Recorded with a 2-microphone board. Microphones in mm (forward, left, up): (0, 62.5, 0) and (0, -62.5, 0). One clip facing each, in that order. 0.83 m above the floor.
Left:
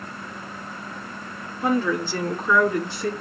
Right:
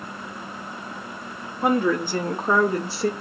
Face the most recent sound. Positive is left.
turn(degrees=-25)  # may be behind; listen again after turning